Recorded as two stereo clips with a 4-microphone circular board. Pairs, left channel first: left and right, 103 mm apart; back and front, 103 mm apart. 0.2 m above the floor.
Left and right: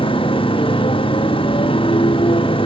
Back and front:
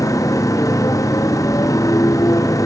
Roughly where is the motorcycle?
Behind left.